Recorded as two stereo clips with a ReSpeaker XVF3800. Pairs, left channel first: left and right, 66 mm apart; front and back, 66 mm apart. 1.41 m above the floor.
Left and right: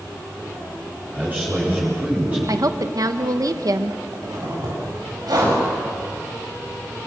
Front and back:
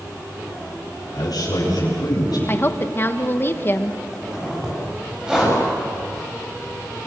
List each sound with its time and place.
1.1 s a man speaking: 25° right, 8 m; by 2.4 s 20° right, 9 m
2.5 s a woman speaking: 60° right, 1.4 m
4.1 s a zipper: 100° right, 9 m